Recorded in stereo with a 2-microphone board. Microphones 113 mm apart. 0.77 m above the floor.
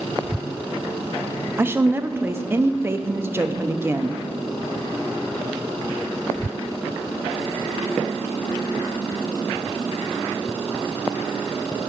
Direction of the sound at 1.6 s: 20° right (ahead or behind).